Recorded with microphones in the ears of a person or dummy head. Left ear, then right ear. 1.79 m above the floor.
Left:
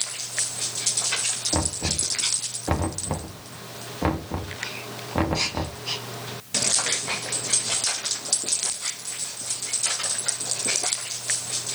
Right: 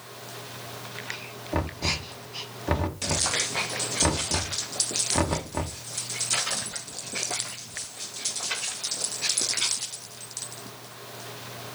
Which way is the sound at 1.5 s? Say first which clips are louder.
Left 2 dB; centre (ahead or behind).